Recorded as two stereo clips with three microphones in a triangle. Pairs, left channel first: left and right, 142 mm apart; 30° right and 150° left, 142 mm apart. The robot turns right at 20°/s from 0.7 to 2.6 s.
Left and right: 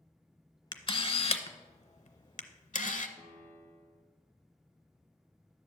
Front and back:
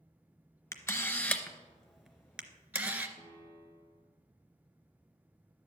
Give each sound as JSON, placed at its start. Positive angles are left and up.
{"t": 0.7, "sound": "a camera shutter", "azimuth_deg": 35, "distance_m": 0.6}
{"t": 3.2, "sound": "a piano", "azimuth_deg": -75, "distance_m": 1.6}